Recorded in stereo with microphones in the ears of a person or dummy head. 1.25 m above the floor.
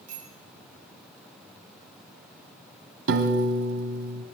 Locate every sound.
0.1 s a bicycle bell: 50° right (ahead or behind), 10 m
3.1 s a piano: 65° right (ahead or behind), 2 m